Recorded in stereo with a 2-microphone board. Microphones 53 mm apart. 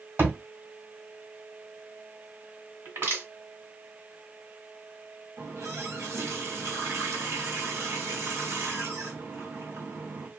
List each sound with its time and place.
0.2 s a thud: 45° right (ahead or behind), 1.7 m
2.9 s crushing: 50° right (ahead or behind), 1.7 m
5.4 s a running tap: 70° right (ahead or behind), 1.2 m